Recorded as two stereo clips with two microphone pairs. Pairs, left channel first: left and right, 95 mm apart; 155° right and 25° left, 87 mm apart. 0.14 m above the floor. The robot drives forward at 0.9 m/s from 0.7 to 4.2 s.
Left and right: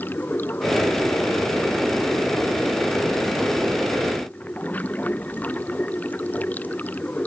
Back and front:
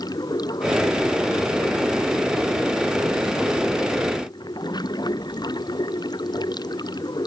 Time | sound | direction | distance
0.0 | running water | 160° left | ?